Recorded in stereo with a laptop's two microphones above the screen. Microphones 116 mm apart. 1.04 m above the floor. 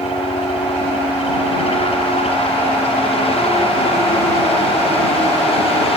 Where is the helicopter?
60° left (ahead or behind).